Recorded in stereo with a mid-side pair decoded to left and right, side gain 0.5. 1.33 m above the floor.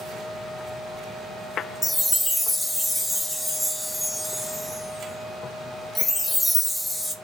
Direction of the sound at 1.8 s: 10° left.